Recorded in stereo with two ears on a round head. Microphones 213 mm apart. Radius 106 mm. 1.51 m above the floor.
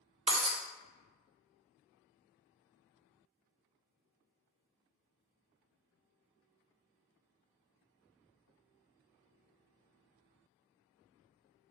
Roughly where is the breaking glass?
Right.